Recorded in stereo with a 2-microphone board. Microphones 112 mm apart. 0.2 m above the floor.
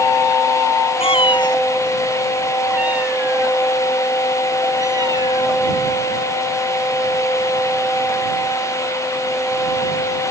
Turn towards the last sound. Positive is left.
turn(degrees=-40)  # may be behind; listen again after turning